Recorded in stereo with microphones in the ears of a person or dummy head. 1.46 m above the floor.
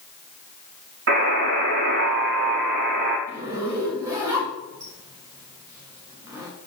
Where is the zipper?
15° right (ahead or behind), 2 m.